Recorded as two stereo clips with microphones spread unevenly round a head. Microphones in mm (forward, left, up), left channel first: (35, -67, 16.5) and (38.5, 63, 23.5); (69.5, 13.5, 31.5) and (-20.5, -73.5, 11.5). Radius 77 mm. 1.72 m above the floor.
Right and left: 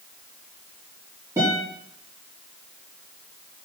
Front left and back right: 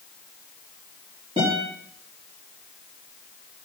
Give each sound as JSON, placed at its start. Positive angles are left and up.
{"t": 1.4, "sound": "a guitar", "azimuth_deg": 160, "distance_m": 4.5}